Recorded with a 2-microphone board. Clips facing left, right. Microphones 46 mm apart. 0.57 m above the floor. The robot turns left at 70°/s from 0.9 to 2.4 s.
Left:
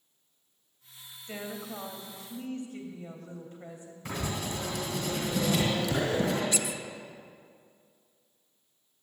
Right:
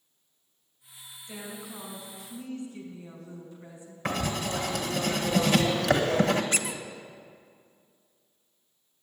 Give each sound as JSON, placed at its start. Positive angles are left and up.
{"t": 1.3, "sound": "a woman speaking", "azimuth_deg": 135, "distance_m": 2.5}
{"t": 4.0, "sound": "writing", "side_deg": -85, "distance_m": 1.5}
{"t": 6.5, "sound": "a squeak", "side_deg": -50, "distance_m": 0.5}